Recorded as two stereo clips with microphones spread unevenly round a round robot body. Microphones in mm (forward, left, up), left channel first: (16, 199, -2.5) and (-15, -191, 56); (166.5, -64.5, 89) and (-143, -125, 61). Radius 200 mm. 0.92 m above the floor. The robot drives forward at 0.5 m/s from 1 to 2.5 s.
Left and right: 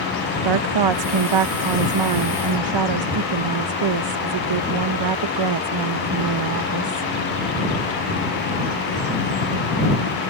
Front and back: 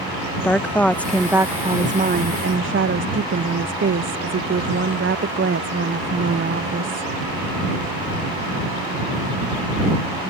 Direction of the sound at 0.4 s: 80° right.